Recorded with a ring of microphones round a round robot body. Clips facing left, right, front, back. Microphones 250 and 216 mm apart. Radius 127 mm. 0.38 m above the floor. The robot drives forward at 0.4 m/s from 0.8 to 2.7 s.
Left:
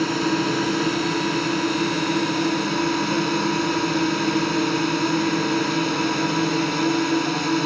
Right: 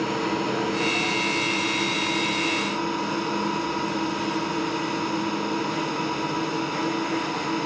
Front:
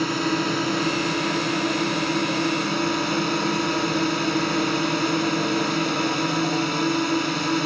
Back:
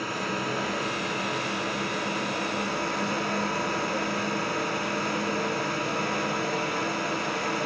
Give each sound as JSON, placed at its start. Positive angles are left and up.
{"t": 0.0, "sound": "a drone", "azimuth_deg": 35}